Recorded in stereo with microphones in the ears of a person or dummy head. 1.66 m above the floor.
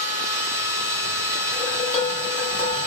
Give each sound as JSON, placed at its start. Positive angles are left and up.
{"t": 0.0, "sound": "a machine running", "side_deg": -15, "distance_m": 1.2}
{"t": 1.5, "sound": "dishes clattering", "side_deg": 35, "distance_m": 1.5}